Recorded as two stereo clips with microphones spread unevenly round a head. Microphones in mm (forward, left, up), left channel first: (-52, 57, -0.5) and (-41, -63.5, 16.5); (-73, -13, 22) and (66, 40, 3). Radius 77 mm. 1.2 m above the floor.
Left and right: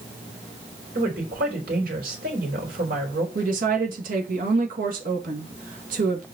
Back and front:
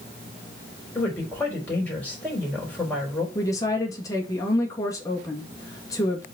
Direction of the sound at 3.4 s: 85° right.